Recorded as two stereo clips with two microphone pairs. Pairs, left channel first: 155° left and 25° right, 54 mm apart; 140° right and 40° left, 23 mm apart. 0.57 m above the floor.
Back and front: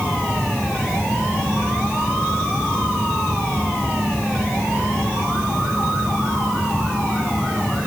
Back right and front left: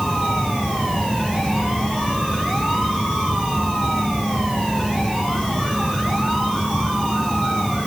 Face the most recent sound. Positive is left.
No sound to turn to.